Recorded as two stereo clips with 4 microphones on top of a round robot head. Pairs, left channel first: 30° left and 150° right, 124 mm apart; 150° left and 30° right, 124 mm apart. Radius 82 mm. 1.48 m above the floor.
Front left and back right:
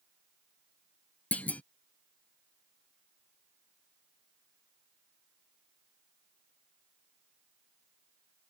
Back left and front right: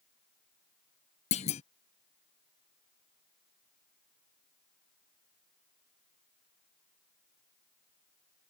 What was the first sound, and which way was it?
A clunk, 110° left.